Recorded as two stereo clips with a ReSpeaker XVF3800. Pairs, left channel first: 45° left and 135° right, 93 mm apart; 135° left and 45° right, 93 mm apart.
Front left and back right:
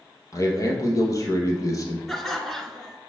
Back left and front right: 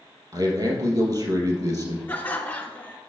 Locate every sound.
0.3 s a man speaking: 5° right, 2.5 m
2.1 s laughter: 130° left, 1.2 m